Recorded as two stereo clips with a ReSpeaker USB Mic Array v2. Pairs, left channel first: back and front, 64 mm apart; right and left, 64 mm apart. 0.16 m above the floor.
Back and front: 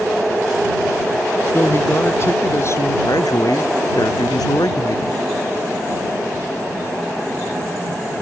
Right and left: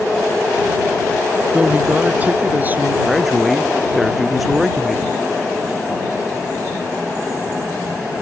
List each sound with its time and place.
1.5 s a man speaking: 150° left; by 3.0 s 145° left
3.0 s a man speaking: straight behind